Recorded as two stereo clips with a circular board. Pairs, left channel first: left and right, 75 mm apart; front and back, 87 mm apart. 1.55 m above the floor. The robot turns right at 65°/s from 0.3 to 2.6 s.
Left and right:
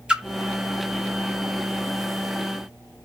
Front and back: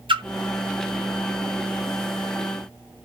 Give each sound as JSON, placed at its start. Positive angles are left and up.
{"t": 0.1, "sound": "a splash", "azimuth_deg": -170, "distance_m": 0.7}